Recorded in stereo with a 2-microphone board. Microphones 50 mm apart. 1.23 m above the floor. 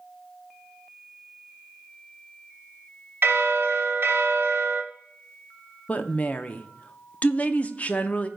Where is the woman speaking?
30° left (ahead or behind), 0.6 m.